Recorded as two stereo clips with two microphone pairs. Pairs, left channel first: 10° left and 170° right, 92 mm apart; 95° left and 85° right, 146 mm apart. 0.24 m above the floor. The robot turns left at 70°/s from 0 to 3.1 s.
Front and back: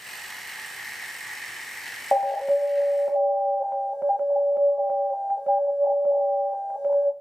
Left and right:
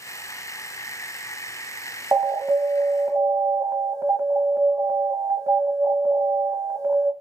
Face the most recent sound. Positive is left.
turn(degrees=-105)